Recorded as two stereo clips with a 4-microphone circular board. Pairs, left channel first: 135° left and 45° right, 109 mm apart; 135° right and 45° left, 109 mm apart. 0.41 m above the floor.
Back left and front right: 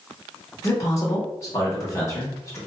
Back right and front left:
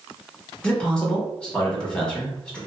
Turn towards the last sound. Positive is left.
turn(degrees=150)